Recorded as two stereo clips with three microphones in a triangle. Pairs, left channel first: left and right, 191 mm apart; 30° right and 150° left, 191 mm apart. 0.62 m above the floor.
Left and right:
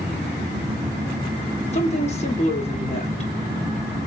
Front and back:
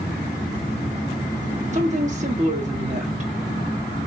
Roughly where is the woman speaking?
Behind left.